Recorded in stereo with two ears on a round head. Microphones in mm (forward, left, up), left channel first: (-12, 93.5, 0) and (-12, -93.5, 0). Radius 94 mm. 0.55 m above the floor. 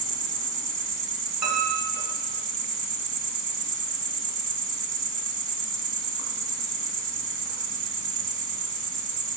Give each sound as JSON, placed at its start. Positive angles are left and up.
{"t": 0.0, "sound": "an insect", "side_deg": -60, "distance_m": 1.3}
{"t": 1.4, "sound": "a piano", "side_deg": -50, "distance_m": 2.5}